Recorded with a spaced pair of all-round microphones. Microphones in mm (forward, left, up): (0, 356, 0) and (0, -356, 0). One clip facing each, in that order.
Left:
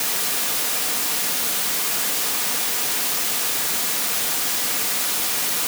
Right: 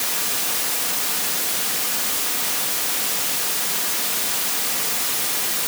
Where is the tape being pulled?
I don't hear tape being pulled.